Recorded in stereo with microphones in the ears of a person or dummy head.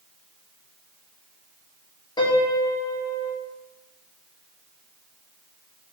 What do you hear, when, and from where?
2.2 s a piano: 20° left (ahead or behind), 0.5 m